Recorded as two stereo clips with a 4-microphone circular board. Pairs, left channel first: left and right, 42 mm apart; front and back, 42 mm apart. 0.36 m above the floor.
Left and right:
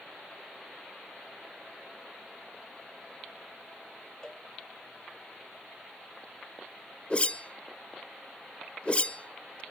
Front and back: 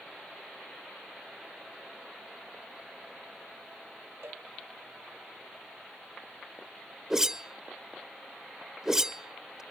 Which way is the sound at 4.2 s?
165° left.